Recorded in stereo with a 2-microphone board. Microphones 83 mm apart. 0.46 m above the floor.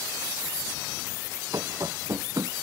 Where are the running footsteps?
45° right (ahead or behind).